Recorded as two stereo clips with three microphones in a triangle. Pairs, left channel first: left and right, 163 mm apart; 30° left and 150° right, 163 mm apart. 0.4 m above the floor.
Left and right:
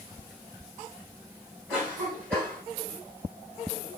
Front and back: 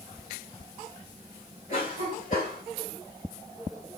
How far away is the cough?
About 2 m.